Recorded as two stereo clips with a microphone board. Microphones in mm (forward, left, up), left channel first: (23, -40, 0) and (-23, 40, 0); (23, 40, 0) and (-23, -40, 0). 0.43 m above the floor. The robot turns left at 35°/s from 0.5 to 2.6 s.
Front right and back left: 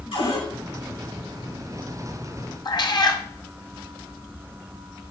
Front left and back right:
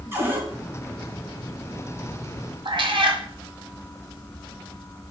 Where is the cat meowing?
95° right, 1.7 m.